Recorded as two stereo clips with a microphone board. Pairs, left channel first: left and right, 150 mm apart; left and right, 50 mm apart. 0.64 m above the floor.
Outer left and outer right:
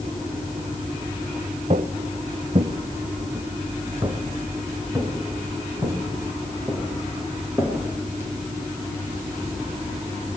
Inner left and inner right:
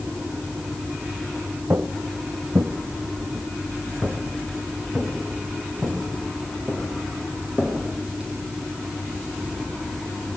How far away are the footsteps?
About 1.0 m.